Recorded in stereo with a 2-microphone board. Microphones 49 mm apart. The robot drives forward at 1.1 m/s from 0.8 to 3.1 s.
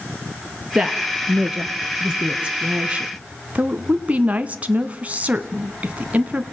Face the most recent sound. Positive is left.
turn(degrees=-30)  # may be behind; listen again after turning